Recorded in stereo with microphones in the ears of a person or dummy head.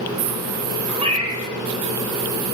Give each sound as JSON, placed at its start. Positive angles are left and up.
{"t": 1.0, "sound": "a cat meowing", "side_deg": -30, "distance_m": 0.8}